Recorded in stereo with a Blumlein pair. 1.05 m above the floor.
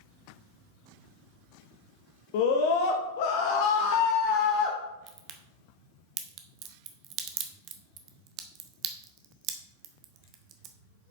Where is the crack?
35° right, 0.9 m.